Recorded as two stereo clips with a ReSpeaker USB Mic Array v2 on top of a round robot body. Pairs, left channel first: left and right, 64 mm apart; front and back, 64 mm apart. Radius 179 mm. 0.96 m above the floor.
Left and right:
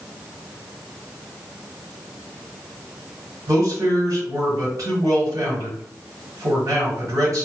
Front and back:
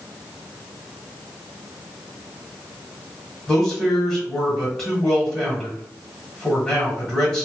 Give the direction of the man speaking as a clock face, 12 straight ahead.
3 o'clock.